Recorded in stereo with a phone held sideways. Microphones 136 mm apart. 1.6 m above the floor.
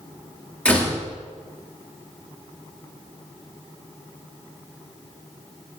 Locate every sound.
0.7 s a door slam: 10° left (ahead or behind), 3 m